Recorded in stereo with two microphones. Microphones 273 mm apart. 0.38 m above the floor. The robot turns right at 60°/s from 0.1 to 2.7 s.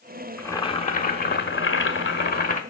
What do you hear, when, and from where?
0.4 s boiling: 10° left, 1.7 m; by 2.6 s 140° left, 1.7 m